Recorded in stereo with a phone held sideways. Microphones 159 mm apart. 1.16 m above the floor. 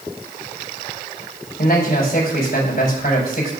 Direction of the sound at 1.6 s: 75° left (ahead or behind).